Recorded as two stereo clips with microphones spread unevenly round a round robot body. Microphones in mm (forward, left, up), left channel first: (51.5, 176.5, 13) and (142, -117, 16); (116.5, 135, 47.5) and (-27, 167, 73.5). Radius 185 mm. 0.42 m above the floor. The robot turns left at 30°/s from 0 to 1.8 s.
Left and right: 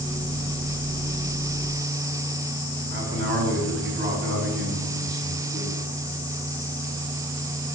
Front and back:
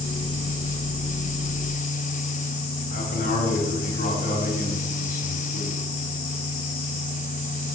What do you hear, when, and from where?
2.9 s a man speaking: 20° right, 4 m